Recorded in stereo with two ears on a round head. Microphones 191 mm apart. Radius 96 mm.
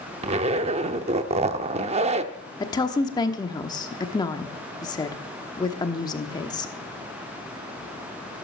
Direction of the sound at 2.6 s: 20° left (ahead or behind).